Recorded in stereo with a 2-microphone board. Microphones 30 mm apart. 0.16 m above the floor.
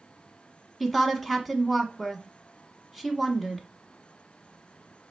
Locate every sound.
0.8 s a woman speaking: centre (ahead or behind), 1.1 m